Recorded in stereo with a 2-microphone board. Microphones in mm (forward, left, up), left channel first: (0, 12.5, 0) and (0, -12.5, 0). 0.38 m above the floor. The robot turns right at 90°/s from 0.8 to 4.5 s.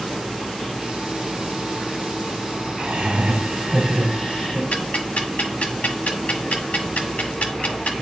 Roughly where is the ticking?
Left.